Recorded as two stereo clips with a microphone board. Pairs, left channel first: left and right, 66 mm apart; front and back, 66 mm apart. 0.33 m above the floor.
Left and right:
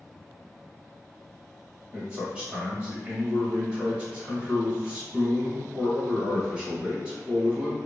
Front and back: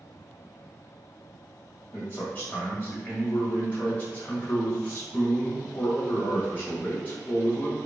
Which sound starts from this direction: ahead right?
A man speaking, at 1.9 s.